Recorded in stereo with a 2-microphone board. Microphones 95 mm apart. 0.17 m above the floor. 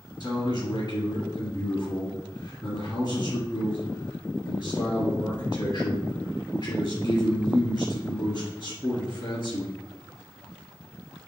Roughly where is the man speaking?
Left.